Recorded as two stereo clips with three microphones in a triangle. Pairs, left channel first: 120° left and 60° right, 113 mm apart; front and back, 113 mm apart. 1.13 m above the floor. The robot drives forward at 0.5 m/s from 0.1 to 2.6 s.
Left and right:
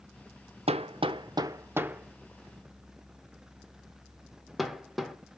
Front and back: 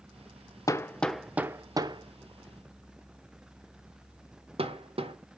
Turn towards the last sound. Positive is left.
turn(degrees=-150)